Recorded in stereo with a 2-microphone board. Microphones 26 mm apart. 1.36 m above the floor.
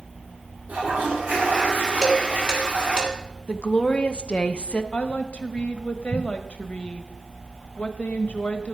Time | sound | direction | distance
0.7 | a toilet flushing | 80° right | 4.5 m
2.0 | dishes clattering | 35° right (ahead or behind) | 2.5 m
3.5 | a woman speaking | 40° left (ahead or behind) | 0.8 m
4.9 | a woman speaking | 60° left (ahead or behind) | 1.3 m